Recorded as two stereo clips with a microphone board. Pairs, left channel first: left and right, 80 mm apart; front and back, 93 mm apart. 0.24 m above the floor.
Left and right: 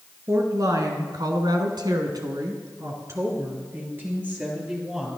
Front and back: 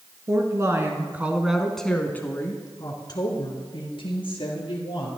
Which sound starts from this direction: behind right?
A woman speaking, at 0.3 s.